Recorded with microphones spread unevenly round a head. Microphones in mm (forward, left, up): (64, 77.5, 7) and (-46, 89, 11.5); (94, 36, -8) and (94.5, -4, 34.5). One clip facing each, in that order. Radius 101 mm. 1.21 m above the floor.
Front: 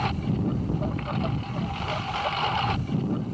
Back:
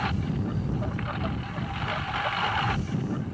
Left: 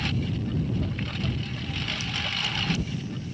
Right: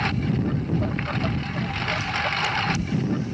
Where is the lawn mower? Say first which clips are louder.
Front 3 dB, right 5 dB; 80° right.